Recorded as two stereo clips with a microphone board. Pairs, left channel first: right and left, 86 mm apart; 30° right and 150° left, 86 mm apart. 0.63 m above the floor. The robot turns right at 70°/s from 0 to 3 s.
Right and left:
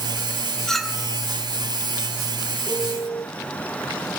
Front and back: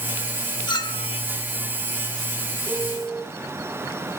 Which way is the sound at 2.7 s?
150° right.